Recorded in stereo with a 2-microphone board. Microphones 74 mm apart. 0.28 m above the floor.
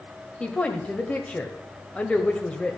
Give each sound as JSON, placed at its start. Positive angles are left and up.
{"t": 0.4, "sound": "a woman speaking", "side_deg": 20, "distance_m": 1.0}